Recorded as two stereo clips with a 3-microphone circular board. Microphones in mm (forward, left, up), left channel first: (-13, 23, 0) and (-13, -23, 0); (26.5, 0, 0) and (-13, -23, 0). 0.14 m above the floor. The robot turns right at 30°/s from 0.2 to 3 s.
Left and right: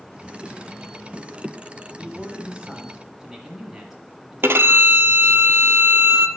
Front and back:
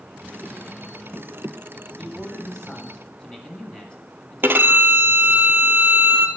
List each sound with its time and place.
2.0 s a man speaking: 55° right, 1.6 m; by 5.4 s 25° right, 1.6 m
4.4 s a violin: 115° right, 0.6 m